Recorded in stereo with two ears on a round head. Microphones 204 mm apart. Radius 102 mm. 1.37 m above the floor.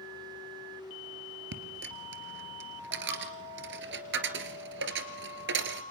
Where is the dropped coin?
55° right (ahead or behind), 2.5 m.